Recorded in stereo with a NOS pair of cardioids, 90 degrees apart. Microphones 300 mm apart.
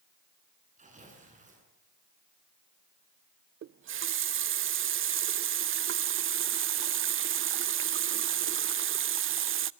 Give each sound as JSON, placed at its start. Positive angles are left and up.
{"t": 0.8, "sound": "tearing paper", "azimuth_deg": -25, "distance_m": 9.0}
{"t": 3.6, "sound": "a running tap", "azimuth_deg": -45, "distance_m": 0.6}